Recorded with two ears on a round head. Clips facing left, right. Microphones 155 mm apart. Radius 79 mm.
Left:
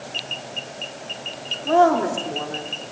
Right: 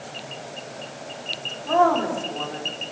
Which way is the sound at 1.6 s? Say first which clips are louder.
Left 3 dB; 35° left (ahead or behind).